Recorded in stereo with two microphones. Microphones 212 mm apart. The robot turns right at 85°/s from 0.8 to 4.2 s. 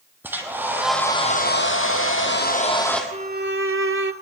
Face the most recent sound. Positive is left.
turn(degrees=-55)